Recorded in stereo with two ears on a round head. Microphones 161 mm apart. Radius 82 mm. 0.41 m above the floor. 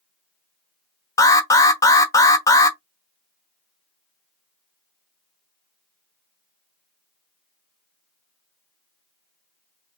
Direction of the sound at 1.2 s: 20° left (ahead or behind).